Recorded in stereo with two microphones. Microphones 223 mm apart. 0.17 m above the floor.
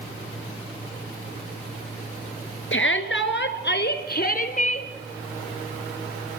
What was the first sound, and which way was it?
A shout, 65° left (ahead or behind).